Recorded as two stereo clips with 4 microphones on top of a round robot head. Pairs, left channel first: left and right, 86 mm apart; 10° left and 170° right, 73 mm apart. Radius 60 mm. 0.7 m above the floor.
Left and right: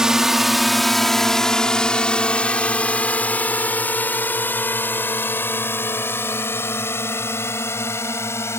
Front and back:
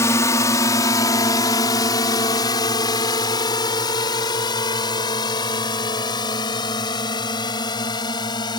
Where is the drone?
10° right; by 8.6 s 30° left.